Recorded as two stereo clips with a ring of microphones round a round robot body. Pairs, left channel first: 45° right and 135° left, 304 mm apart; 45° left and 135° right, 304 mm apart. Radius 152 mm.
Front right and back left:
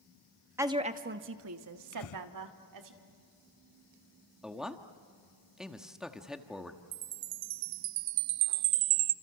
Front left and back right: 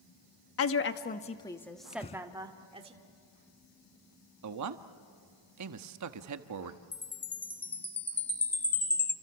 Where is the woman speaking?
55° left, 1.1 m; by 2.9 s 155° left, 2 m.